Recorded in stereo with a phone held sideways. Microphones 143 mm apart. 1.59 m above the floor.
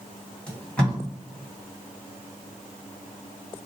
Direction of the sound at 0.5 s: 5° left (ahead or behind).